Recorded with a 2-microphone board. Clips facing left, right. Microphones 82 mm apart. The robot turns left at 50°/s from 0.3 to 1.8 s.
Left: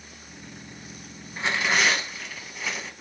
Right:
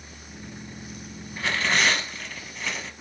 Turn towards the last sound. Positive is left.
turn(degrees=5)  # may be behind; listen again after turning